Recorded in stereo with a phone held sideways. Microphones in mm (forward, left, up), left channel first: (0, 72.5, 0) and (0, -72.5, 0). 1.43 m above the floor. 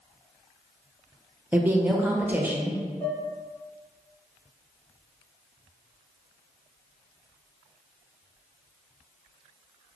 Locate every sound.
1.5 s a woman speaking: 10° right (ahead or behind), 0.5 m
3.0 s dishes clattering: 35° left (ahead or behind), 1.5 m